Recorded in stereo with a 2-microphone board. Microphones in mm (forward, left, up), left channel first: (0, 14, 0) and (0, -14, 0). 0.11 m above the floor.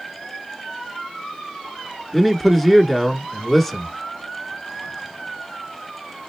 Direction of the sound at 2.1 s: 5° left (ahead or behind).